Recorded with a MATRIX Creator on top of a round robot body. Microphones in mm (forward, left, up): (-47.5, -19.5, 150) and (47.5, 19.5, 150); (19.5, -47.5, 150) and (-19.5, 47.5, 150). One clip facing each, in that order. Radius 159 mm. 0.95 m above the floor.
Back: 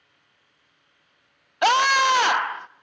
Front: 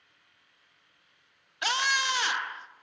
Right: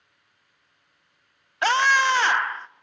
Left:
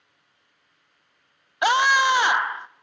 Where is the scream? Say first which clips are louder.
Back 11 dB, left 1 dB; 175° right, 0.5 m.